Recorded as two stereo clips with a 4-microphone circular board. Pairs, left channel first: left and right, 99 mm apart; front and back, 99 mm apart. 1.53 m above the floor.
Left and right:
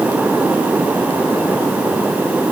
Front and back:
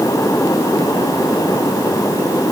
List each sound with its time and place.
Only background noise.